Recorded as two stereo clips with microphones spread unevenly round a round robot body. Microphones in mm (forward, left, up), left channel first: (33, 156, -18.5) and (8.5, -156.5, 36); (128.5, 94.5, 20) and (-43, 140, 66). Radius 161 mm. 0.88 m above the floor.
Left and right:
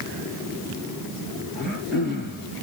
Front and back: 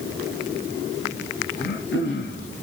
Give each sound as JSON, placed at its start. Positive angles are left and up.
{"t": 1.6, "sound": "throat clearing", "azimuth_deg": -5, "distance_m": 8.5}